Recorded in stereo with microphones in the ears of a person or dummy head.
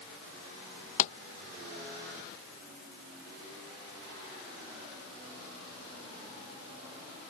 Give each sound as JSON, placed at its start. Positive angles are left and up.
{"t": 1.0, "sound": "a pop", "side_deg": 40}